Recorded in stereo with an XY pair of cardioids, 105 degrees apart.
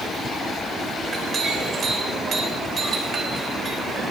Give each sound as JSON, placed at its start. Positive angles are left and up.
{"t": 1.0, "sound": "a clink", "azimuth_deg": -45, "distance_m": 4.0}